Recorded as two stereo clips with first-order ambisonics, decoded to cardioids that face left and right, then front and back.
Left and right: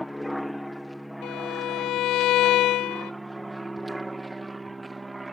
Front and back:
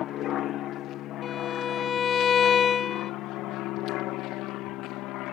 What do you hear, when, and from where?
0.0 s an aircraft: 10° left; by 5.3 s 10° right
1.2 s a violin: 65° left